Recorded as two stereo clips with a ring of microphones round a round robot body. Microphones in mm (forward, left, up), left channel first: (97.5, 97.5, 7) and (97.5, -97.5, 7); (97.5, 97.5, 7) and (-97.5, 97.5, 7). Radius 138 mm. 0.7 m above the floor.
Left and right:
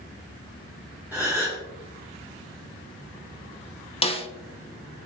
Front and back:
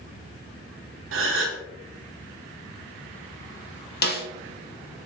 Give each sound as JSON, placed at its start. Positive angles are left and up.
{"t": 1.1, "sound": "a gasp", "azimuth_deg": -175, "distance_m": 0.7}
{"t": 4.0, "sound": "a snare drum", "azimuth_deg": 30, "distance_m": 0.7}